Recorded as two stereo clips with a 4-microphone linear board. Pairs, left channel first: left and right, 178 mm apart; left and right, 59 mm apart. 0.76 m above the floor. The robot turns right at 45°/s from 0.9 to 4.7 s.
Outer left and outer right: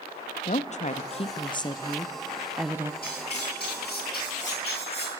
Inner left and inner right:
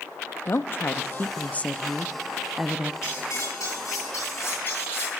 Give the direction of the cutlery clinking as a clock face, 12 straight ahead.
10 o'clock.